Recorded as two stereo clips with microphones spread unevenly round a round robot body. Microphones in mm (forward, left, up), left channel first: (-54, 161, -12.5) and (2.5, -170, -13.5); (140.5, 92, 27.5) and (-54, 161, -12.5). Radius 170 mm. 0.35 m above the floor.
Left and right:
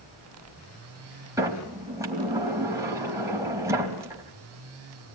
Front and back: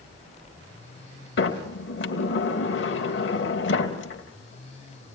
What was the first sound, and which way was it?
A sliding door, straight ahead.